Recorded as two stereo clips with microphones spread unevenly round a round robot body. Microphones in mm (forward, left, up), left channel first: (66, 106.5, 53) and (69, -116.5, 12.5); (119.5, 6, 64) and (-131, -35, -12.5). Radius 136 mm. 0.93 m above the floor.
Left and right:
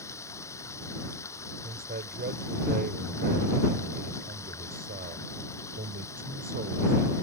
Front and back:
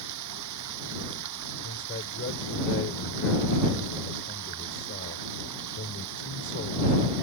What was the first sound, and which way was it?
Running water, 170° left.